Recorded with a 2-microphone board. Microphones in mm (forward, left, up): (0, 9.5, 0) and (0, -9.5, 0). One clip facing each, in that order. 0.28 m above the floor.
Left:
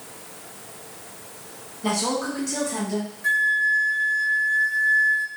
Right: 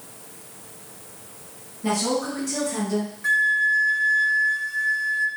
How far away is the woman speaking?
About 2.0 m.